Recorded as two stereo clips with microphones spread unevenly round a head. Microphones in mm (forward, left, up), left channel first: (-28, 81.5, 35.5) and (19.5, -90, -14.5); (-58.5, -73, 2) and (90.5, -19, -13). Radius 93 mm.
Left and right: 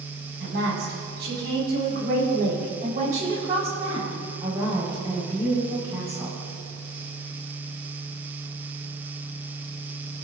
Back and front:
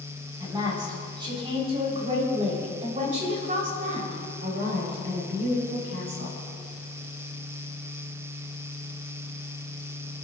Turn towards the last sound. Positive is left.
turn(degrees=5)